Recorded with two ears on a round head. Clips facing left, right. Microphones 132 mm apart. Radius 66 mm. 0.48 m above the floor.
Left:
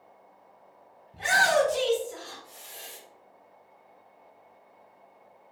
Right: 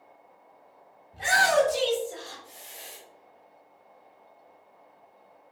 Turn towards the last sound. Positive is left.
turn(degrees=-10)  # may be behind; listen again after turning